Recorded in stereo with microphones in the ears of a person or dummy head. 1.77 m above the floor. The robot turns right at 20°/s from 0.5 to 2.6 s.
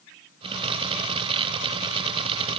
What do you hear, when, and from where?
Only background noise.